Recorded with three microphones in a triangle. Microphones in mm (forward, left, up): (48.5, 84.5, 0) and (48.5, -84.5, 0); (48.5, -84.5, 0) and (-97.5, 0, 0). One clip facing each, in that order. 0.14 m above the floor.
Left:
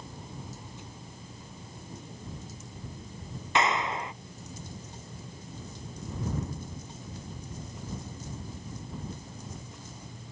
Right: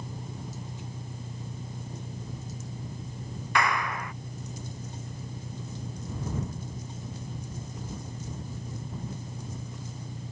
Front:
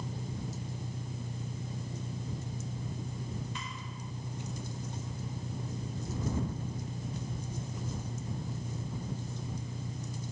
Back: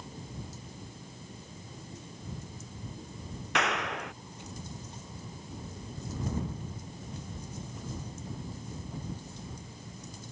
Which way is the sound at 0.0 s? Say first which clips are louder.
Right 4 dB, front 4 dB; 50° right.